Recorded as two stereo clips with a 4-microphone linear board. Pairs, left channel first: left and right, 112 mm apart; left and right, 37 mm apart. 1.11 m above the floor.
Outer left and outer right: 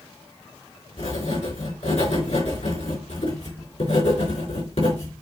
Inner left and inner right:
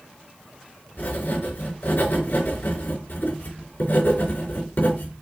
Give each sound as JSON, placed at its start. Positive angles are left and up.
{"t": 1.0, "sound": "writing", "side_deg": 75, "distance_m": 4.5}